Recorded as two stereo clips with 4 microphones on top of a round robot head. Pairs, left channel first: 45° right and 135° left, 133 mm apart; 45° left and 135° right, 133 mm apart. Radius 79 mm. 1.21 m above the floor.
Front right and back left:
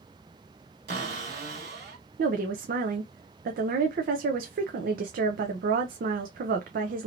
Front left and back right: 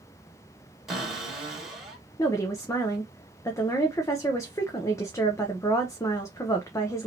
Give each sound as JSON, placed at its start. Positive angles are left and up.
{"t": 0.9, "sound": "a cupboard door", "azimuth_deg": 140, "distance_m": 1.5}
{"t": 2.2, "sound": "a woman speaking", "azimuth_deg": 115, "distance_m": 0.6}